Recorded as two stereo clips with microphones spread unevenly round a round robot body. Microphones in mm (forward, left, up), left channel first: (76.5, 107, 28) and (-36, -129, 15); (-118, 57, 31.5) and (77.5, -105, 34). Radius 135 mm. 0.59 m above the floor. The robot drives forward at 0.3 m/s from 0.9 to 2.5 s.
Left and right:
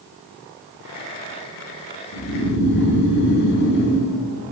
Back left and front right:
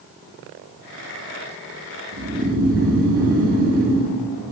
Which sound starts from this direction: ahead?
Snoring, at 2.1 s.